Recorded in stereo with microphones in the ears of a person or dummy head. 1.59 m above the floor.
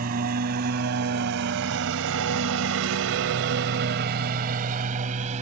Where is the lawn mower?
45° right (ahead or behind); by 5.4 s 40° right (ahead or behind).